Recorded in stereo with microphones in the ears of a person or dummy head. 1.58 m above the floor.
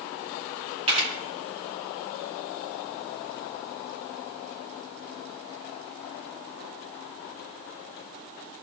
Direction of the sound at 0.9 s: 30° right (ahead or behind).